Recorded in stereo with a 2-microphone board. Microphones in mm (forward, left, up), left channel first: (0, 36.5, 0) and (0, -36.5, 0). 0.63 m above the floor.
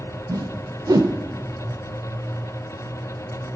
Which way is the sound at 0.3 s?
70° right (ahead or behind).